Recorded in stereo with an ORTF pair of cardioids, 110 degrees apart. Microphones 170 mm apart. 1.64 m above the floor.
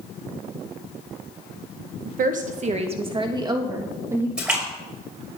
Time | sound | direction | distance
2.0 | a woman speaking | 60° right | 1.7 m
4.4 | a splash | 5° right | 6.5 m